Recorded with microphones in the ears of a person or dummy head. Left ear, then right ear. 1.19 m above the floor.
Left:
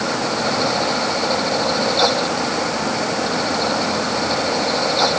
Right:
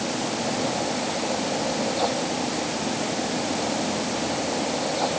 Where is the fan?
55° left (ahead or behind).